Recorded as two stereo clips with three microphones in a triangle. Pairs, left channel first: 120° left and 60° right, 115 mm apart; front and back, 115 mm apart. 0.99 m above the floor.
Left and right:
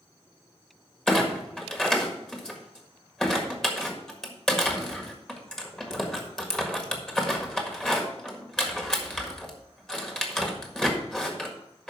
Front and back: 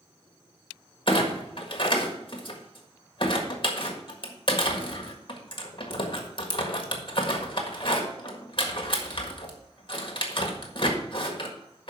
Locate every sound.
1.1 s a clunk: 35° left, 1.6 m